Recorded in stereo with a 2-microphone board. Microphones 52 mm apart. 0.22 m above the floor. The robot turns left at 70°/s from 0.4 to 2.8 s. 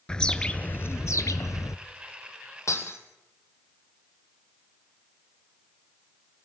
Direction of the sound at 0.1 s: 165° left.